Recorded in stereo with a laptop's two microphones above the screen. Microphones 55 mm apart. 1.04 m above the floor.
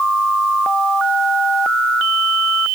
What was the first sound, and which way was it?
Only background noise.